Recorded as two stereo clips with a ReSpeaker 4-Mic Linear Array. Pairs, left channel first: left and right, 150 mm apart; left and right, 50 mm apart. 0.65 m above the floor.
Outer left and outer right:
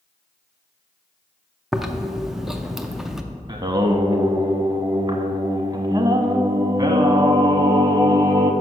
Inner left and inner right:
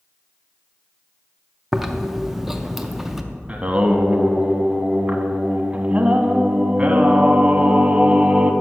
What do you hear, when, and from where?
1.7 s chewing: 5° right (ahead or behind), 0.5 m
3.5 s singing: 30° right (ahead or behind), 0.6 m